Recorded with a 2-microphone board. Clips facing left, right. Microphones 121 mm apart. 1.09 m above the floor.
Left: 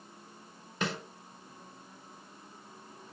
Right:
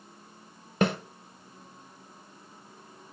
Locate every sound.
0.8 s a snare drum: 55° right (ahead or behind), 1.2 m